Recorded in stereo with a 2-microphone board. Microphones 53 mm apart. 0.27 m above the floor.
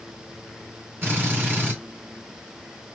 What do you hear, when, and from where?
1.0 s a drill: 40° right (ahead or behind), 2.5 m